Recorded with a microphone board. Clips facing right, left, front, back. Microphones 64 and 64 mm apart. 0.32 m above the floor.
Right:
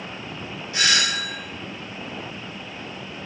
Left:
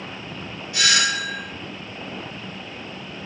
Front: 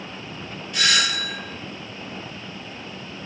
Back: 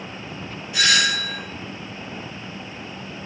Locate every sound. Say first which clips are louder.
0.7 s a doorbell: left 1 dB, back 2 dB; 105° right, 1.9 m